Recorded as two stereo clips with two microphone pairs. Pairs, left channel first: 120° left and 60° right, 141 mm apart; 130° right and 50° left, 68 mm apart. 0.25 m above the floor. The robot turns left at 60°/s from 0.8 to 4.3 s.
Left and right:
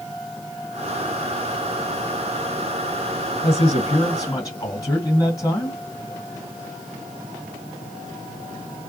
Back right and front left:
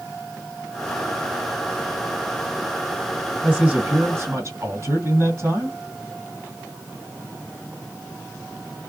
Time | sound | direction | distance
3.4 | a man speaking | 120° left | 2 m